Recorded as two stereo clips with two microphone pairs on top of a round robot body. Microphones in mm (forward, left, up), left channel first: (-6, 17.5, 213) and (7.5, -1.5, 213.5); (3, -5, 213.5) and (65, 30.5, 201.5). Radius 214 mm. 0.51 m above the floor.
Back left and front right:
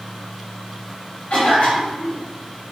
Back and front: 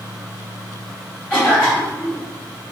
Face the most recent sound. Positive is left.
turn(degrees=140)